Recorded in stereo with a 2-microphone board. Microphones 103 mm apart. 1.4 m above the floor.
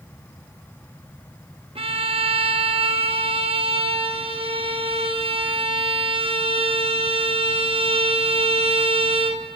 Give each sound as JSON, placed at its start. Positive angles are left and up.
{"t": 1.8, "sound": "a violin", "side_deg": -70, "distance_m": 0.5}